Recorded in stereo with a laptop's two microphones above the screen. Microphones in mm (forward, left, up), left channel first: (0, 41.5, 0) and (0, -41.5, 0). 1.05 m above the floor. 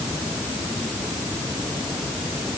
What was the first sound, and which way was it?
Only background noise.